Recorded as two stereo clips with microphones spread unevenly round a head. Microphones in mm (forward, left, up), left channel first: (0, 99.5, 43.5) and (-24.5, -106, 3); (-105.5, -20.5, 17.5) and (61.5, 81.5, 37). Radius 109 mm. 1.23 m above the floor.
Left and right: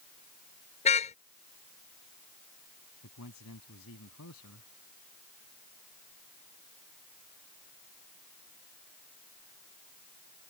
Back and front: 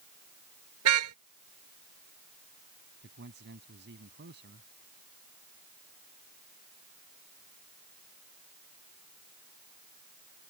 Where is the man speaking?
65° left.